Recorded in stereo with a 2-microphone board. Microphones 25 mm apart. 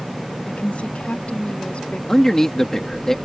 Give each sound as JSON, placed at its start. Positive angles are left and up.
{"t": 0.5, "sound": "a woman speaking", "side_deg": 80}
{"t": 2.1, "sound": "a man speaking", "side_deg": 25}